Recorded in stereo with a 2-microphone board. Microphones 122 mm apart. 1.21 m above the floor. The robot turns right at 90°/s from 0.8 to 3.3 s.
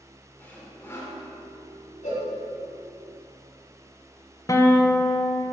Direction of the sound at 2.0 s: 80° left.